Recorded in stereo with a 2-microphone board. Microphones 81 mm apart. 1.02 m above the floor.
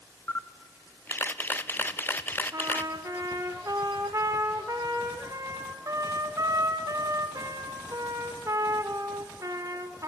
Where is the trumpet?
45° right (ahead or behind), 1.5 m.